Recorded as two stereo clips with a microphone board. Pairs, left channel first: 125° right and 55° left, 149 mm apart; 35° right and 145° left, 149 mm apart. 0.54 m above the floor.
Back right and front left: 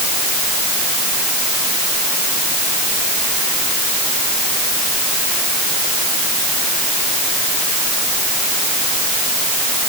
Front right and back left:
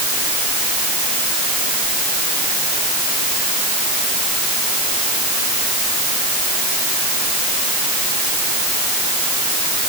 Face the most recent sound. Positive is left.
No sound to turn to.